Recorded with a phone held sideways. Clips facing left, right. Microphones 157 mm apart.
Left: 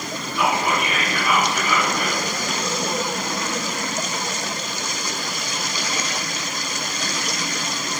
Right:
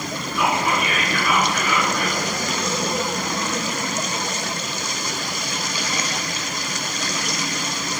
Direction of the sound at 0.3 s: 25° left (ahead or behind).